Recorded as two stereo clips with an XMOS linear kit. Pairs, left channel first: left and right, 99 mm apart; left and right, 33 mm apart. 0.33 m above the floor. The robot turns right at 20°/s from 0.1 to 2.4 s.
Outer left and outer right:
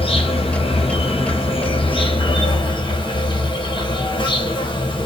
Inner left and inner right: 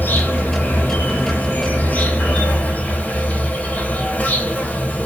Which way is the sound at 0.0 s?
80° left.